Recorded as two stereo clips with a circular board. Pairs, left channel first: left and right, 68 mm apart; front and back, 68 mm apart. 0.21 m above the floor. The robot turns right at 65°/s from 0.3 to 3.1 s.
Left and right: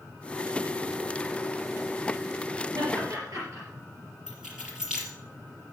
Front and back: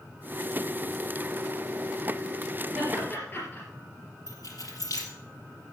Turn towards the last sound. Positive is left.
turn(degrees=-10)